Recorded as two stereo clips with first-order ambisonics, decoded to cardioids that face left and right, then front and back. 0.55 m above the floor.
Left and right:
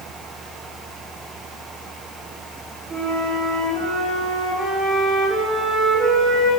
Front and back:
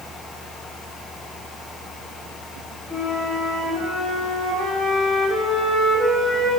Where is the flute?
60° right, 1.4 m.